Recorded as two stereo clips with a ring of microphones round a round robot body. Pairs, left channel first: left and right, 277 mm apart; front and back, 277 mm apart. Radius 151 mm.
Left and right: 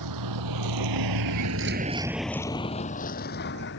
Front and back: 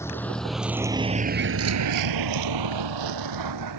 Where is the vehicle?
80° right; by 3.8 s 145° left.